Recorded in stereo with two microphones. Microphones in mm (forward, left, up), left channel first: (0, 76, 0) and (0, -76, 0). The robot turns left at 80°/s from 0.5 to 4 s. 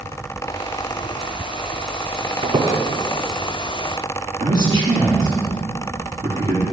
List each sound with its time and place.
2.4 s a squeak: 40° right (ahead or behind), 1.0 m; by 2.8 s 20° right (ahead or behind), 1.0 m
4.4 s a man speaking: 30° right (ahead or behind), 2.5 m